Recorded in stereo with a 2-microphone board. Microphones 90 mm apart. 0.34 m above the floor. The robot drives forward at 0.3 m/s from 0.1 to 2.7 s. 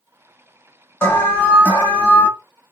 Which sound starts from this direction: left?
An alarm, at 1.0 s.